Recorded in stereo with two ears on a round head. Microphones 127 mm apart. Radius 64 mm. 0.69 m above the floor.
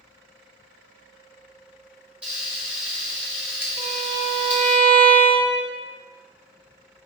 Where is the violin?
45° right (ahead or behind), 0.9 m.